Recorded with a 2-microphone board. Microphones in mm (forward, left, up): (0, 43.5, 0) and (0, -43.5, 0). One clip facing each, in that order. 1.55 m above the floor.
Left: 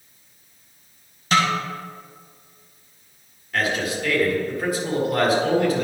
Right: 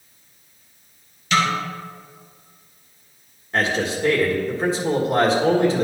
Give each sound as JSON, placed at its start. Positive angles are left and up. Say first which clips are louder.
{"t": 1.3, "sound": "a snare drum", "louder": "even", "side_deg": 40, "distance_m": 1.8}
{"t": 3.5, "sound": "a man speaking", "louder": "right 2 dB", "side_deg": -30, "distance_m": 1.7}